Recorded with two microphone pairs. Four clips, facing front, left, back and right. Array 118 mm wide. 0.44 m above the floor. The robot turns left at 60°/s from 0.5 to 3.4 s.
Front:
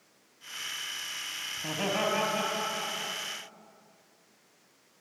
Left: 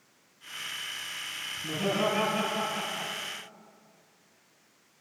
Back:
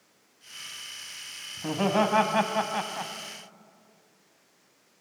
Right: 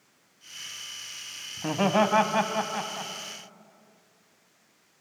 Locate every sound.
1.6 s laughter: 90° right, 3 m; by 3.1 s straight behind, 3 m